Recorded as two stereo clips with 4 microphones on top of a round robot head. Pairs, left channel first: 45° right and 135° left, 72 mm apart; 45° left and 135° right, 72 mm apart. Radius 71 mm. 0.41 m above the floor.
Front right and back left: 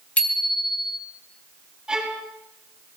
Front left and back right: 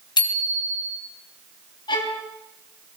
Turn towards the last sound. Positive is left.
turn(degrees=55)